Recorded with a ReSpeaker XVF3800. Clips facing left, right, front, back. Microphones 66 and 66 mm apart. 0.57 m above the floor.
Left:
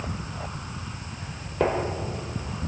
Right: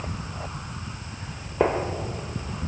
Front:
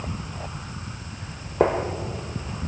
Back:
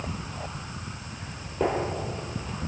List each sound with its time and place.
1.6 s a gunshot: 20° right, 1.2 m